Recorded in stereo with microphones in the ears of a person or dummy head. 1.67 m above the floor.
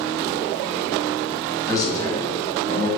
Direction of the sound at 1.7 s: 15° left (ahead or behind).